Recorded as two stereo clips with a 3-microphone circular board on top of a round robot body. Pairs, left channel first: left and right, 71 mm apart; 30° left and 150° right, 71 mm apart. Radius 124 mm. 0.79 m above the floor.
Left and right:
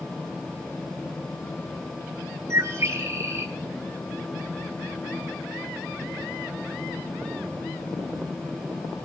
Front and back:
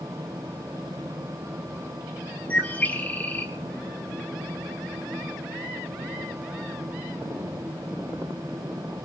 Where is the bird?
35° right, 3.5 m.